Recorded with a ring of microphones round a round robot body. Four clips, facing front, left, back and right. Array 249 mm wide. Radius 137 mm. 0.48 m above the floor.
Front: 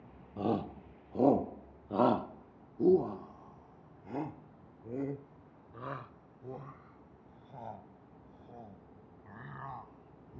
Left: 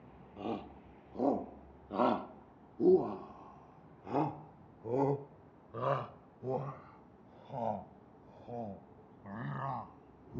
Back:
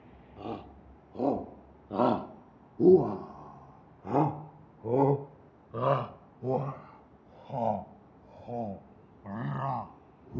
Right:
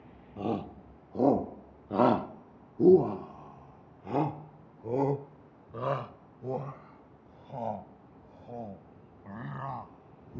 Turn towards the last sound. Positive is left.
turn(degrees=180)